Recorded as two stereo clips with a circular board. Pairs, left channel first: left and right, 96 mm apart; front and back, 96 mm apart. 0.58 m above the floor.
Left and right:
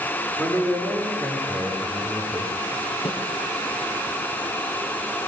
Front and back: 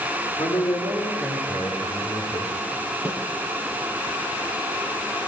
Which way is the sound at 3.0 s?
100° left.